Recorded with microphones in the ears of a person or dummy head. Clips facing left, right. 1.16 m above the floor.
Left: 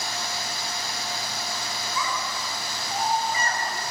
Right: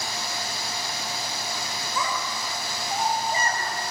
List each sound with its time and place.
1.9 s a child speaking: 45° right (ahead or behind), 4 m; by 3.6 s 35° right (ahead or behind), 5 m